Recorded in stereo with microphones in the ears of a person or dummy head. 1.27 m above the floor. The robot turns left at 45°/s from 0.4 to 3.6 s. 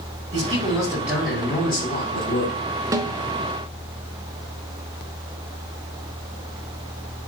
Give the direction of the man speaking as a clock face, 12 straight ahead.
5 o'clock.